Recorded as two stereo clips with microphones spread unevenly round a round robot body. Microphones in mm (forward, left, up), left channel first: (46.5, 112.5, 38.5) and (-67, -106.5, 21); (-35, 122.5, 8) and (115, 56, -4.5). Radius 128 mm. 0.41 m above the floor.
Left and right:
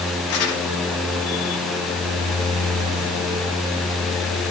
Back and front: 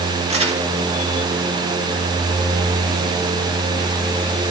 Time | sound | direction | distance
0.3 | crumpling | 25° left | 5 m